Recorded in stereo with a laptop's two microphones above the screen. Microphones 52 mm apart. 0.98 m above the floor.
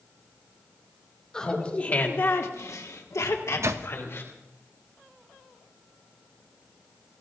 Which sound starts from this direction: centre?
Laughter, at 1.3 s.